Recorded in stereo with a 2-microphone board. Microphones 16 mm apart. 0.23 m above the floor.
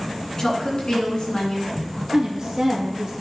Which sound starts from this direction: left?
A woman speaking, at 0.4 s.